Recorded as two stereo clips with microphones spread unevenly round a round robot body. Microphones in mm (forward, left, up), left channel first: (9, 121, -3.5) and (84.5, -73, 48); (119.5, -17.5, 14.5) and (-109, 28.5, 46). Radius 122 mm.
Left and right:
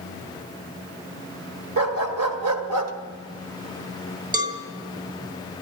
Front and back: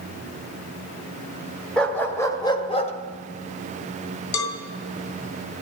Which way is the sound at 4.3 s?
Straight ahead.